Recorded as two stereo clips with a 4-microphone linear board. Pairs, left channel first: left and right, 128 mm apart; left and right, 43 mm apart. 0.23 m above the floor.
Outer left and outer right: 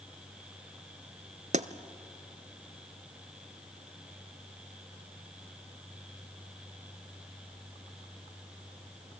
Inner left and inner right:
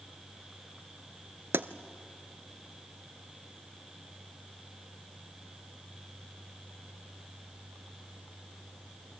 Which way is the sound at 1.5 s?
65° right (ahead or behind).